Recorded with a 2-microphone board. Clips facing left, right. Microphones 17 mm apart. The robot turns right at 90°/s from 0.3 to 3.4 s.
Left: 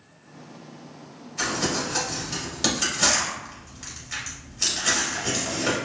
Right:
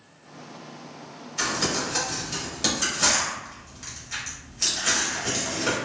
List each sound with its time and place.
1.4 s crumpling: 15° right (ahead or behind), 1.0 m; by 5.8 s 15° left (ahead or behind), 1.0 m